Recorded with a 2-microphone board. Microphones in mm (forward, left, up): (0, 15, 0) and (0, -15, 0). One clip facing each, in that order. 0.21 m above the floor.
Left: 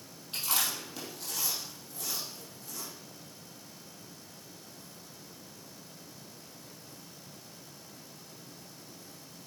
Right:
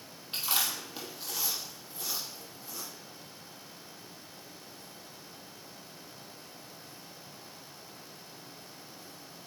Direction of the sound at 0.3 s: 20° right (ahead or behind).